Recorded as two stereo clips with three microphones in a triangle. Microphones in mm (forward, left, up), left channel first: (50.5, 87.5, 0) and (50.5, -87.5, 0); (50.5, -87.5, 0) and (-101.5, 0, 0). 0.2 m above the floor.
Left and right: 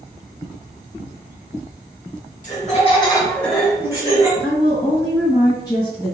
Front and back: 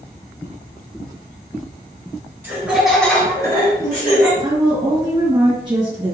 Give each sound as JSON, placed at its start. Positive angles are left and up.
{"t": 2.4, "sound": "laughter", "azimuth_deg": 75, "distance_m": 1.9}
{"t": 4.4, "sound": "a woman speaking", "azimuth_deg": 130, "distance_m": 1.7}